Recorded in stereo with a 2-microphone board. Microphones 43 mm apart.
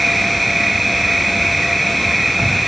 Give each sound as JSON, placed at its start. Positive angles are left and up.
{"t": 0.0, "sound": "an insect", "side_deg": -5}